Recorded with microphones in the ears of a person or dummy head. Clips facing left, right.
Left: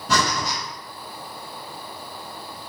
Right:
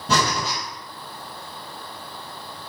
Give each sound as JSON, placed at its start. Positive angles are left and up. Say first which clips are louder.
{"t": 0.1, "sound": "breathing", "louder": "right 1 dB", "side_deg": -30, "distance_m": 1.6}